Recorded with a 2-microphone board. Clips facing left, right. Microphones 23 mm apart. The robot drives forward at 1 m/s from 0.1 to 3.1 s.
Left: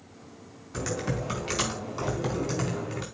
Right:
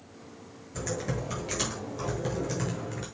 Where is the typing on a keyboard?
70° left (ahead or behind), 5 m; by 3.0 s 85° left, 4.5 m.